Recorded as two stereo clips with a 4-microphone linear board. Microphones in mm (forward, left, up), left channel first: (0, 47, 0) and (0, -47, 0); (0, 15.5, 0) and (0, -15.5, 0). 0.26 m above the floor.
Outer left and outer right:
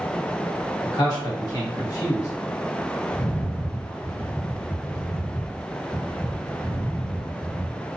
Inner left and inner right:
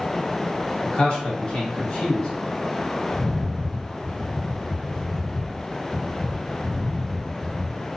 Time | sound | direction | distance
0.8 | a man speaking | 45° left (ahead or behind) | 1.8 m
3.1 | a rattle | 35° left (ahead or behind) | 0.7 m